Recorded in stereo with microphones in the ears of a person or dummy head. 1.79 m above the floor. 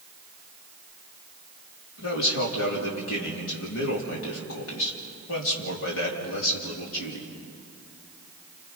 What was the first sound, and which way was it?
A man speaking, 75° left (ahead or behind).